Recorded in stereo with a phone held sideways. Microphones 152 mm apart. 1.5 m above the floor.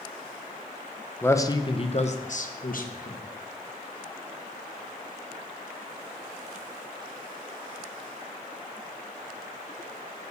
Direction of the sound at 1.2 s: 15° left (ahead or behind).